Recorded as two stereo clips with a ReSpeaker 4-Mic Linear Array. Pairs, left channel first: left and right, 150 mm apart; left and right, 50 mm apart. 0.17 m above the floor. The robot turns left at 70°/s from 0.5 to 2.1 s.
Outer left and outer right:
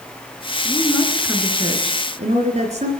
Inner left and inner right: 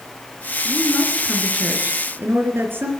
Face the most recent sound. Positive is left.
turn(degrees=-60)